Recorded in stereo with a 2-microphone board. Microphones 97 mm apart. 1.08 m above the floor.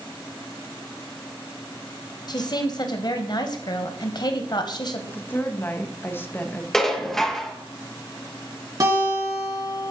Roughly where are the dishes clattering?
Centre.